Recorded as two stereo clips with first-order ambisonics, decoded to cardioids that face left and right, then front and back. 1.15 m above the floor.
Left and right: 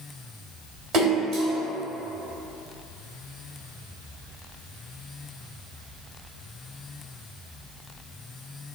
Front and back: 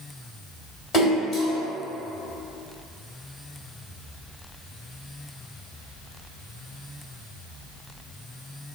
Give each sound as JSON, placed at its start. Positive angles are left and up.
{"t": 0.9, "sound": "a splash", "azimuth_deg": -45, "distance_m": 1.2}